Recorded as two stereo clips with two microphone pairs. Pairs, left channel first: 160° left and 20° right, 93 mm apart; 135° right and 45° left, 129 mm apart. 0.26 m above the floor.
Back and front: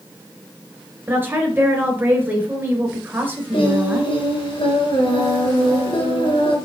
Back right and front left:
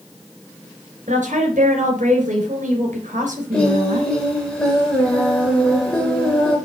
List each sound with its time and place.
1.1 s a woman speaking: 45° left, 3.5 m
3.5 s singing: 145° left, 3.5 m